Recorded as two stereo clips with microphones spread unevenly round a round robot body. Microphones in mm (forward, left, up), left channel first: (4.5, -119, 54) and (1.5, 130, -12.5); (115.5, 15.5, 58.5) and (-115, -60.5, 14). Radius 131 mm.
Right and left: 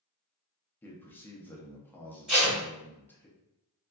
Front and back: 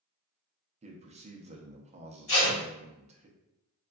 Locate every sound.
0.8 s a man speaking: 175° left, 0.6 m
2.3 s tape being pulled: 20° left, 1.4 m